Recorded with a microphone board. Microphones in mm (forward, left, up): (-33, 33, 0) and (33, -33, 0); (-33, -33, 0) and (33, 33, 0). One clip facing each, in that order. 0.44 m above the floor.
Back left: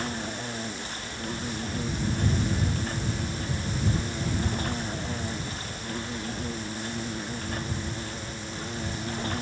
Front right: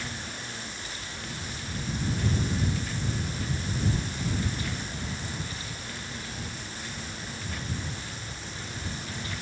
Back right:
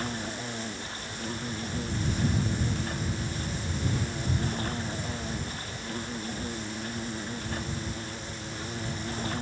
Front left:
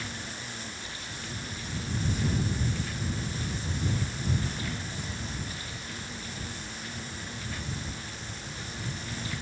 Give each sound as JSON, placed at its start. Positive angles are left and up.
{"t": 0.0, "sound": "an insect", "azimuth_deg": 180}